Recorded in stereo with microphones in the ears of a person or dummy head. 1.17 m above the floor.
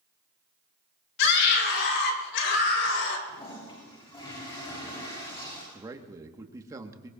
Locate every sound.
1.2 s a scream: 65° left (ahead or behind), 3.5 m
3.3 s a toilet flushing: 30° left (ahead or behind), 8 m
5.7 s a man speaking: 20° right (ahead or behind), 1.6 m